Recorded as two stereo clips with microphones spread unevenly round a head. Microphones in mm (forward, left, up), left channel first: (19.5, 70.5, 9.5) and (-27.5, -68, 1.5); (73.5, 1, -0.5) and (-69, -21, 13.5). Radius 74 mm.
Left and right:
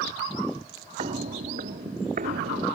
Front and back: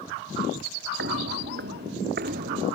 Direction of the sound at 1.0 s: 160° right.